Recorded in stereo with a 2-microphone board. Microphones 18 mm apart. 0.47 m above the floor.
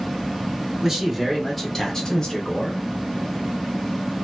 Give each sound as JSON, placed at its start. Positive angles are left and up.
{"t": 0.8, "sound": "a man speaking", "side_deg": -25, "distance_m": 1.2}